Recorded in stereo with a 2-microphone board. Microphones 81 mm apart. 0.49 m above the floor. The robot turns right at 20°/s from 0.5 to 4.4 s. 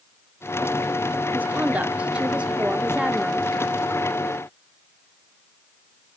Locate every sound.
1.3 s a woman speaking: 20° right (ahead or behind), 0.7 m; by 3.5 s 5° right (ahead or behind), 0.7 m